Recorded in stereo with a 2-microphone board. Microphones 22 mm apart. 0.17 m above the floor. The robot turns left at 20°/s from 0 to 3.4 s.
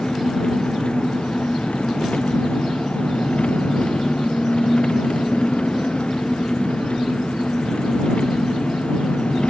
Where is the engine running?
135° left; by 9.5 s 70° left.